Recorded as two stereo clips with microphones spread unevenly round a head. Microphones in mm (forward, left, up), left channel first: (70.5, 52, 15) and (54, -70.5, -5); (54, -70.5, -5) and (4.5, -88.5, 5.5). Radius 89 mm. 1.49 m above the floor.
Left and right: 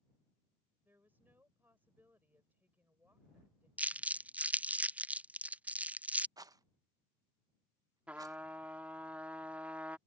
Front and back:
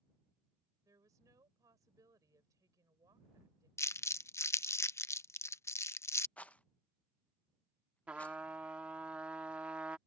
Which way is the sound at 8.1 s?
170° left.